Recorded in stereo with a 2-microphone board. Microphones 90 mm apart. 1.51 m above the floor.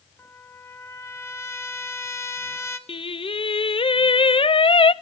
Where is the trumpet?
30° left (ahead or behind), 1.6 m.